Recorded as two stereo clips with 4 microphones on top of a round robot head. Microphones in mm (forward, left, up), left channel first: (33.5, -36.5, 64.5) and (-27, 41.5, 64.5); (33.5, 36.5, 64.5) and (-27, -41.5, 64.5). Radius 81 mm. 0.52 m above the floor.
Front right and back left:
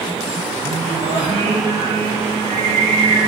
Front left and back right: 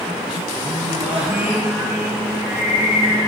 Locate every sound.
0.6 s singing: 150° left, 4 m